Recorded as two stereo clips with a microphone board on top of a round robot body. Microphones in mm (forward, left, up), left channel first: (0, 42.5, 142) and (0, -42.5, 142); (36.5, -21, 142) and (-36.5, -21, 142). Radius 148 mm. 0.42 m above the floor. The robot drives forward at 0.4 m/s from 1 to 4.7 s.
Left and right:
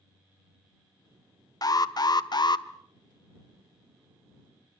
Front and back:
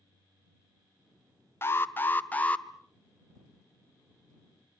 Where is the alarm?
55° left, 1.5 m; by 2.7 s 70° left, 1.4 m.